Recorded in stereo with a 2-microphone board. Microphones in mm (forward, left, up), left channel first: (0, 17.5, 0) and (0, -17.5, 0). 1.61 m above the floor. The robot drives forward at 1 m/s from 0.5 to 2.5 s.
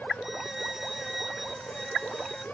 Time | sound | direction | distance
0.2 | a violin | 10° right (ahead or behind) | ?